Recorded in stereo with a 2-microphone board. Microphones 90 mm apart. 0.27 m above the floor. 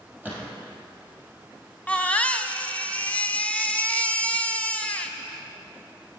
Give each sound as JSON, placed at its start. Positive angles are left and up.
{"t": 0.2, "sound": "a gunshot", "side_deg": -15, "distance_m": 3.0}
{"t": 1.9, "sound": "a baby crying", "side_deg": 15, "distance_m": 0.6}